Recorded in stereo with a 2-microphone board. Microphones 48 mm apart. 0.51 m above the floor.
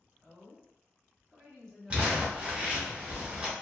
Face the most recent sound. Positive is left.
turn(degrees=-25)  # may be behind; listen again after turning